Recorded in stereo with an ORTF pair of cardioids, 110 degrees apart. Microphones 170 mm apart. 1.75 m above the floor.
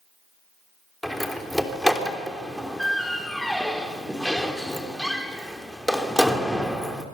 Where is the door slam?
Straight ahead, 3 m.